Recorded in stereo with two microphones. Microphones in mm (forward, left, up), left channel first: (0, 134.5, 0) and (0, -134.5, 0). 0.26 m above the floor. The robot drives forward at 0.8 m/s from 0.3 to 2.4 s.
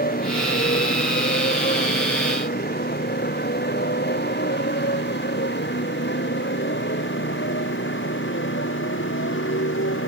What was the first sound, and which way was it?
A motorcycle, 35° left (ahead or behind).